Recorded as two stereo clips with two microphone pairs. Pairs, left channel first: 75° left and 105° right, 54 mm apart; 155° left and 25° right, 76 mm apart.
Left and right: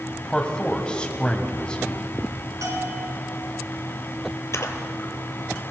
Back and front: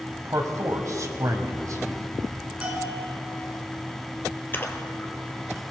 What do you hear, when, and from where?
0.2 s a man speaking: 5° left, 1.8 m
2.6 s a bell: 100° right, 2.5 m
4.5 s a splash: 100° left, 1.3 m